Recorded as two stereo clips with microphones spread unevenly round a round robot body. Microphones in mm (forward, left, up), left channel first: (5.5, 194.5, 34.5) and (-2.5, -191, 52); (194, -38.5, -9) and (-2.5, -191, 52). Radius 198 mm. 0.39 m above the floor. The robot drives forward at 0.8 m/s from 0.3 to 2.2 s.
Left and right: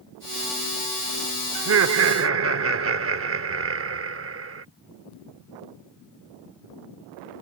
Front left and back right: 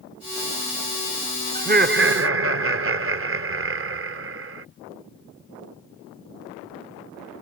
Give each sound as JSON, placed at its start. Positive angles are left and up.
{"t": 1.6, "sound": "laughter", "azimuth_deg": -80}